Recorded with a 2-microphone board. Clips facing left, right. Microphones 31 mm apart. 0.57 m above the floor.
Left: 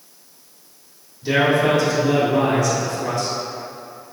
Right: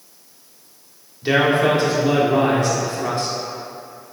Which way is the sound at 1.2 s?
40° right (ahead or behind).